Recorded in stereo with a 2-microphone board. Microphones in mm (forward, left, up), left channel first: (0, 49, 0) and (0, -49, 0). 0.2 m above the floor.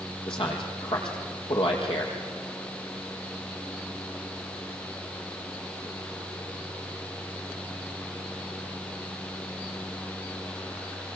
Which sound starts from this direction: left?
A man speaking, at 0.3 s.